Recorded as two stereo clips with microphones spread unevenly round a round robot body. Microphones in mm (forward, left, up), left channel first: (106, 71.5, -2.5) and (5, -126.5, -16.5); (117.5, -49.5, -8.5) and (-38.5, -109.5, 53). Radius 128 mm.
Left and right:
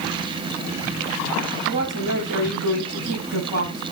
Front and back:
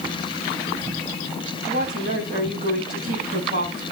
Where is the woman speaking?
115° right, 9.5 m.